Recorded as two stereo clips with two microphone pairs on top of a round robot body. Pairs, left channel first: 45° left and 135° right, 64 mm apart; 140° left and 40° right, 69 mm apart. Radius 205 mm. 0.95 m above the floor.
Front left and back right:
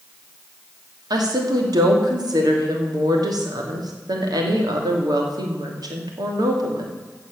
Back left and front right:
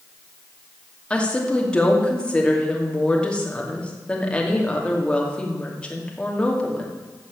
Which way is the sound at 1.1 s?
145° right.